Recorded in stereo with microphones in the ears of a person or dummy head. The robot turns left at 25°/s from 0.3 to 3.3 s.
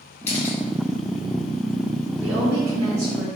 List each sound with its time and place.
0.3 s a camera shutter: 20° left (ahead or behind), 1.3 m; by 0.6 s 10° left (ahead or behind), 1.3 m
2.2 s a woman speaking: 80° right, 1.7 m; by 3.3 s 70° right (ahead or behind), 1.7 m